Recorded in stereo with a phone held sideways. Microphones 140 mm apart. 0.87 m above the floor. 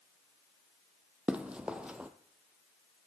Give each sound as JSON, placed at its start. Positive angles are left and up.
{"t": 1.3, "sound": "running footsteps", "side_deg": -10, "distance_m": 1.1}